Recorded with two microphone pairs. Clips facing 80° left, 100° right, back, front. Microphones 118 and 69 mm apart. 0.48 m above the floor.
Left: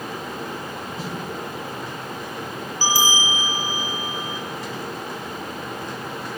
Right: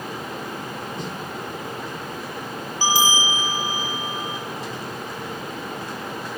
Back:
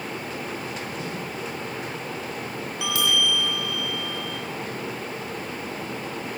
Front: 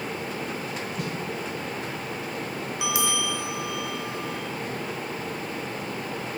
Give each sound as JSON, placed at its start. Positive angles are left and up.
{"t": 1.0, "sound": "a snare drum", "azimuth_deg": -5, "distance_m": 1.1}
{"t": 2.8, "sound": "a bell", "azimuth_deg": -55, "distance_m": 1.6}